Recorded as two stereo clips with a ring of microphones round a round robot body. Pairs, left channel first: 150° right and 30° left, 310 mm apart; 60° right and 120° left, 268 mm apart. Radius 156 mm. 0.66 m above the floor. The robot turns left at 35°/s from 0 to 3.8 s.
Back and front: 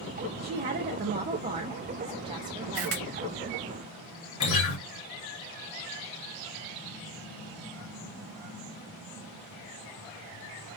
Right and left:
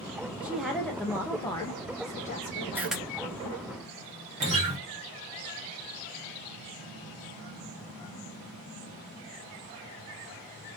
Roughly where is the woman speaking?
Ahead left.